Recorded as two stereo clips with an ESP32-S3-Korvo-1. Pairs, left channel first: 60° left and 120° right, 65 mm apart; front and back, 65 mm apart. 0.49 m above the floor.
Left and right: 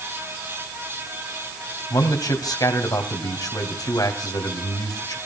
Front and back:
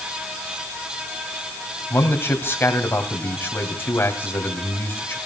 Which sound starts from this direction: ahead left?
A man speaking, at 1.9 s.